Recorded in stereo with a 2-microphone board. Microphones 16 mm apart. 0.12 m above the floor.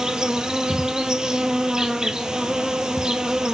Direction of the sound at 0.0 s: 50° right (ahead or behind).